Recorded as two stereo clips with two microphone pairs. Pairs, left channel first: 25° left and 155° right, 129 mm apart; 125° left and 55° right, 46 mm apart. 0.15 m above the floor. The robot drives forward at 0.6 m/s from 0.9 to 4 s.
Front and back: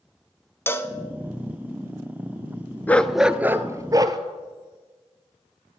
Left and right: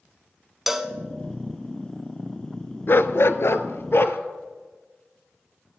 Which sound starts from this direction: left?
A dog barking, at 2.9 s.